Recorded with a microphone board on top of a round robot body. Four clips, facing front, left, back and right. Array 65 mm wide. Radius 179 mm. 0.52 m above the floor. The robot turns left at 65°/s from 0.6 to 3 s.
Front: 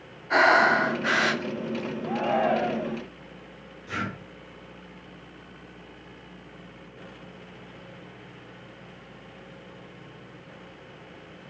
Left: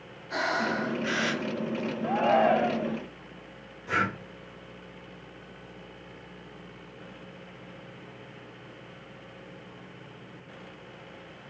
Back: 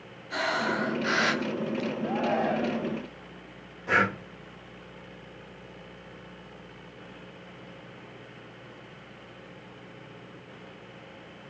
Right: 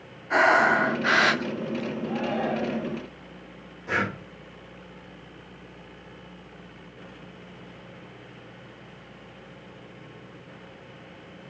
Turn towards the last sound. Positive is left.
turn(degrees=-155)